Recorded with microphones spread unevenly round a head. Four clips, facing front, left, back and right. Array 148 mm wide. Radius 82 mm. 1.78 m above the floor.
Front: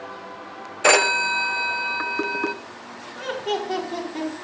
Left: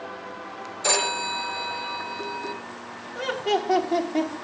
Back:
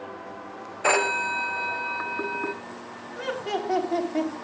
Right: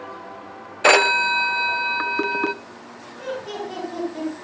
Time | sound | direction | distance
0.8 | a phone ringing | 50° right | 0.8 m
3.1 | laughter | 105° left | 4.5 m